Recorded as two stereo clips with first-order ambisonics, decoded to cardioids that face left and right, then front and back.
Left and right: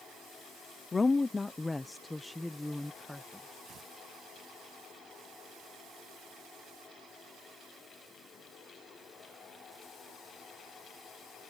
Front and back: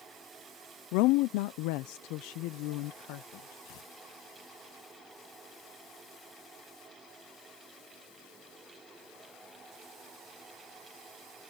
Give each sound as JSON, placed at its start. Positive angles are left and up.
{"t": 0.9, "sound": "a woman speaking", "azimuth_deg": 15}
{"t": 3.6, "sound": "tearing paper", "azimuth_deg": -30}